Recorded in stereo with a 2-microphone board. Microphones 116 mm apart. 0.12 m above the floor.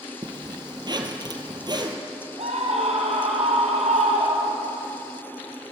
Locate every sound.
0.2 s a zipper: 40° right (ahead or behind), 2.5 m
2.4 s a scream: 65° right (ahead or behind), 2.5 m